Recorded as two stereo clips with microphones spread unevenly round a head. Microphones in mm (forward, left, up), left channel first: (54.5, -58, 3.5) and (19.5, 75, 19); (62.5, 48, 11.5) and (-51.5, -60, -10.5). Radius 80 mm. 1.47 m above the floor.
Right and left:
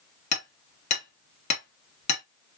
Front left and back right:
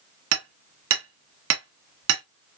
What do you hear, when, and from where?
0.3 s hammering: 125° right, 1.4 m